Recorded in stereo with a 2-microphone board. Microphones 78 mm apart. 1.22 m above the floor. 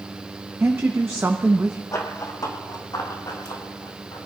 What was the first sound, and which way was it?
A woman speaking, 30° right (ahead or behind).